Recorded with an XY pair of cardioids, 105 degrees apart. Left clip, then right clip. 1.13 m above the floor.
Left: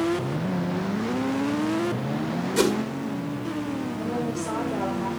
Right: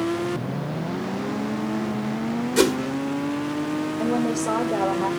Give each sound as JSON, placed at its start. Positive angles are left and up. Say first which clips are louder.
{"t": 2.6, "sound": "a whoosh", "louder": "right 3 dB", "azimuth_deg": -30, "distance_m": 1.9}
{"t": 4.0, "sound": "a woman speaking", "louder": "right 6 dB", "azimuth_deg": -60, "distance_m": 3.5}